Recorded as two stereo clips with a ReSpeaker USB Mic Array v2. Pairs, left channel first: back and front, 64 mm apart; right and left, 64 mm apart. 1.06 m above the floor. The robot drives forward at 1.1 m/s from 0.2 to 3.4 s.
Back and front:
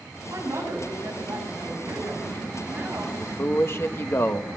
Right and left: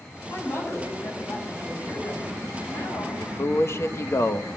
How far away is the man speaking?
About 1.0 m.